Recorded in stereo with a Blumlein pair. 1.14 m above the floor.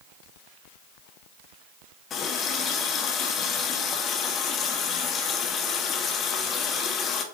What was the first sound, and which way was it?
A running tap, 30° left.